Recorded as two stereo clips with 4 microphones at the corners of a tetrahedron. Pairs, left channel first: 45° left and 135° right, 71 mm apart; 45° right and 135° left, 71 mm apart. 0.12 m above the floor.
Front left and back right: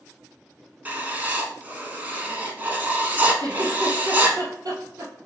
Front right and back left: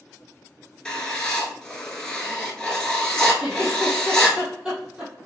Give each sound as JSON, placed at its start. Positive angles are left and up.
{"t": 0.8, "sound": "writing", "azimuth_deg": -110, "distance_m": 0.9}
{"t": 3.4, "sound": "a giggle", "azimuth_deg": -150, "distance_m": 2.0}